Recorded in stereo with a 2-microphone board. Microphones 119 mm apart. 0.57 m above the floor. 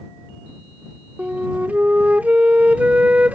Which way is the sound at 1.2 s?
10° right (ahead or behind).